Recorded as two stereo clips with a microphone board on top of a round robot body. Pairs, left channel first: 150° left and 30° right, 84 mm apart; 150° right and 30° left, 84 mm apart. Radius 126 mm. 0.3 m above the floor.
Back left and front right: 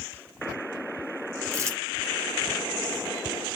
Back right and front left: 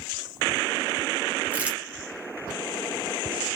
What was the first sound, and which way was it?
Crumpling, 30° right.